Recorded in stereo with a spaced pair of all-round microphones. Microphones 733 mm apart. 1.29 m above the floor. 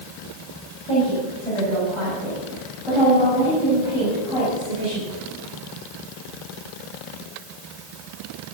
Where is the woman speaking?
10° left (ahead or behind), 7.5 m; by 5.2 s 10° right (ahead or behind), 8.5 m.